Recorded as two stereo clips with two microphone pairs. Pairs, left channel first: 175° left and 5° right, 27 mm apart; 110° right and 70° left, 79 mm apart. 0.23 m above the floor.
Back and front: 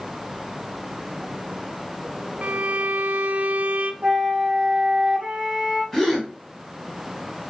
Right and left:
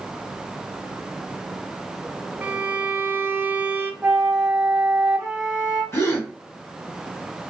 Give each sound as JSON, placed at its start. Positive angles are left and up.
{"t": 2.4, "sound": "a violin", "azimuth_deg": 10, "distance_m": 0.6}
{"t": 4.0, "sound": "a flute", "azimuth_deg": 25, "distance_m": 1.9}
{"t": 5.9, "sound": "a gasp", "azimuth_deg": -110, "distance_m": 1.7}